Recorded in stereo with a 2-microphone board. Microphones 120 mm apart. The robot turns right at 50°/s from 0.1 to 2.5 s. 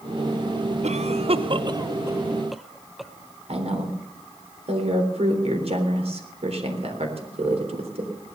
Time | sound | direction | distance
0.8 | a cough | 65° right (ahead or behind) | 1.0 m
3.5 | a woman speaking | 55° right (ahead or behind) | 3.5 m